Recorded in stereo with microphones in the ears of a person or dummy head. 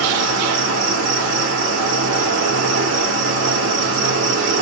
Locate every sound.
0.0 s an insect: 70° right (ahead or behind), 1.2 m